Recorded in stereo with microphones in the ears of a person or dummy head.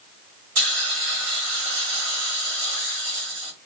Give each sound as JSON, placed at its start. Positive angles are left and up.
{"t": 0.6, "sound": "a hiss", "side_deg": -70, "distance_m": 1.6}